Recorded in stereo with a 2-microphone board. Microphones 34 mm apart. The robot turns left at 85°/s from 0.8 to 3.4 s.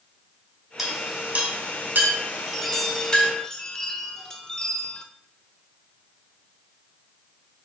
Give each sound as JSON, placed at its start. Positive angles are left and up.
{"t": 0.8, "sound": "a clink", "side_deg": -10, "distance_m": 2.0}
{"t": 2.5, "sound": "a chime", "side_deg": 5, "distance_m": 0.7}